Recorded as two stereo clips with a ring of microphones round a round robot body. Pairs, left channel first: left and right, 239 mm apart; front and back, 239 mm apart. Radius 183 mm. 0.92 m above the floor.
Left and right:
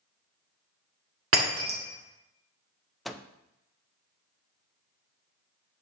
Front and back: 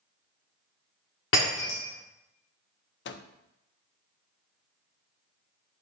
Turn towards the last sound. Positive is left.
turn(degrees=0)